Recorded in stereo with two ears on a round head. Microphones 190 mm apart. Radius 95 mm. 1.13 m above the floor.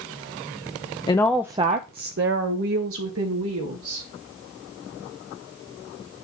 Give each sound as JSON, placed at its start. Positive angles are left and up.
{"t": 1.1, "sound": "a woman speaking", "side_deg": 20, "distance_m": 0.6}